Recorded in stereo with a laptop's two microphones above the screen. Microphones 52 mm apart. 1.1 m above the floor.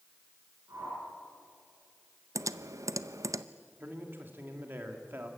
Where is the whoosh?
85° right, 7 m.